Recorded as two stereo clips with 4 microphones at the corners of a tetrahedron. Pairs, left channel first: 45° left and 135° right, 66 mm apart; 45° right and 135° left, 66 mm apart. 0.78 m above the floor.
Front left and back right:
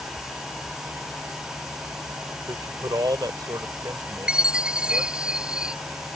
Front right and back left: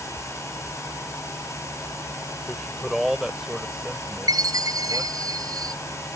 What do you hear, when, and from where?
2.5 s a man speaking: 135° right; by 5.3 s 165° right
4.3 s a chime: 150° left